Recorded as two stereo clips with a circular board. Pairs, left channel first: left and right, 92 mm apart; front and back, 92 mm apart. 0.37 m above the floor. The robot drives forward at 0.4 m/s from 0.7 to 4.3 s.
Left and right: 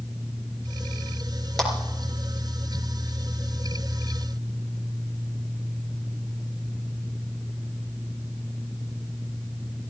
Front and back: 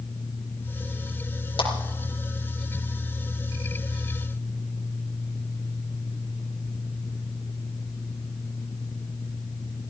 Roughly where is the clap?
Ahead.